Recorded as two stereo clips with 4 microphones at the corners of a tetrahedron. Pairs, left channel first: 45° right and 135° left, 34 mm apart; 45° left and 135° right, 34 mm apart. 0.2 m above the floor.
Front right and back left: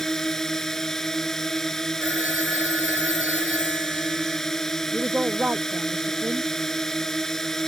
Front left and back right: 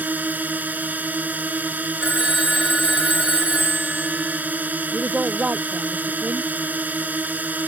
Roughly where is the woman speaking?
Behind.